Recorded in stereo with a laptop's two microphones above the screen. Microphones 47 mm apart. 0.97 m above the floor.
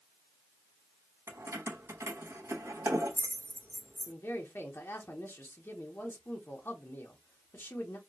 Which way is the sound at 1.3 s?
75° right (ahead or behind).